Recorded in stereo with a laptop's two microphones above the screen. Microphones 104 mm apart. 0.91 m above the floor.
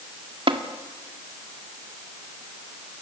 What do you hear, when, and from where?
0.5 s tapping: 65° right (ahead or behind), 2.0 m